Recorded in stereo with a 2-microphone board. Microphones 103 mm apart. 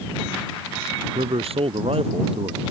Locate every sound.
1.1 s a man speaking: 70° right (ahead or behind)